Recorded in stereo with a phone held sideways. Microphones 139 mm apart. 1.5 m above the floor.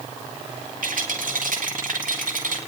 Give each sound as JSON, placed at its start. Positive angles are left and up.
{"t": 0.8, "sound": "a rattle", "side_deg": -85, "distance_m": 5.0}